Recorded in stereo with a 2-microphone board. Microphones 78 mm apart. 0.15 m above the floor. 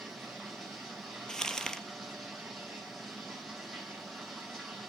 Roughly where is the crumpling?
Centre.